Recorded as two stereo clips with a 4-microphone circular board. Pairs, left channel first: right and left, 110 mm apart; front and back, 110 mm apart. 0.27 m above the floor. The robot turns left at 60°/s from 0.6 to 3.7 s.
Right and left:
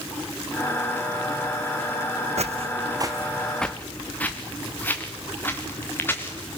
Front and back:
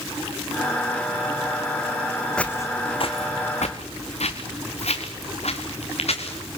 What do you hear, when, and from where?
2.4 s footsteps: 80° left, 1.0 m; by 6.6 s 20° right, 3.5 m